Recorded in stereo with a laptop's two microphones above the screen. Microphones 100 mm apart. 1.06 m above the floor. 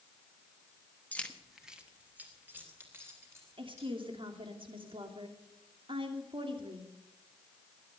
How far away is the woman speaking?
About 3 m.